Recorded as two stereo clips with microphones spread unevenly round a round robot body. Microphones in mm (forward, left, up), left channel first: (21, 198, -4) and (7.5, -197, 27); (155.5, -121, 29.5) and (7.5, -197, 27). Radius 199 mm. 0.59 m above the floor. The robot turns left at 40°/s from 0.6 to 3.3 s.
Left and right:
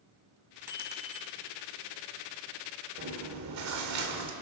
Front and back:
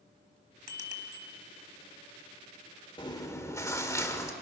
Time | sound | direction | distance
0.7 | a bicycle bell | 5° right | 3 m
3.0 | chewing | 30° right | 2.5 m